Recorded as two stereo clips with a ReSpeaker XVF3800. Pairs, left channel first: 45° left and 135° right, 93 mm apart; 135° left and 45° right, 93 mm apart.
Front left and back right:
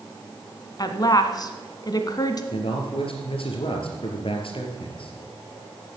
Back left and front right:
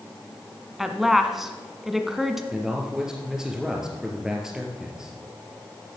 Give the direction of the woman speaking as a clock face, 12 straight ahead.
11 o'clock.